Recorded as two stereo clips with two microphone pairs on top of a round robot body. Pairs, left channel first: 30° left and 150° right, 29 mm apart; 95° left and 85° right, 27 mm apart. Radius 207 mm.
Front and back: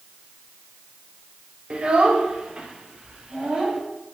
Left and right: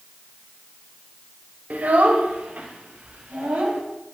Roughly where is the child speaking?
Right.